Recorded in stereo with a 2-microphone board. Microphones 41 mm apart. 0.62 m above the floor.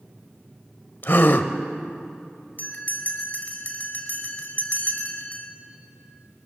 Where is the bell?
45° left (ahead or behind), 2.5 m.